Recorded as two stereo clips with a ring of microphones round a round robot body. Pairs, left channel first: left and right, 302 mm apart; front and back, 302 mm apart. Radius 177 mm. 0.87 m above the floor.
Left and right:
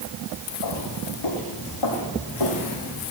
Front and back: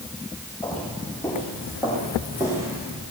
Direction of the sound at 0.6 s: 85° left.